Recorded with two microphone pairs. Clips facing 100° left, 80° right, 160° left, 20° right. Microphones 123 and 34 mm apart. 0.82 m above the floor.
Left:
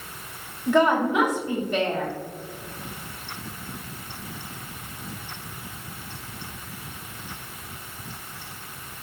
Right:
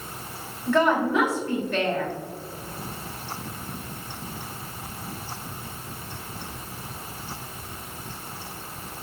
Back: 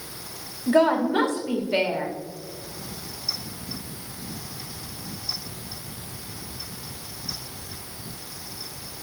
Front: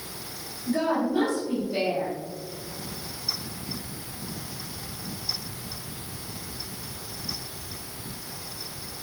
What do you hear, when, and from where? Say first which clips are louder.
0.7 s a woman speaking: left 1 dB, back 6 dB; 170° left, 2.0 m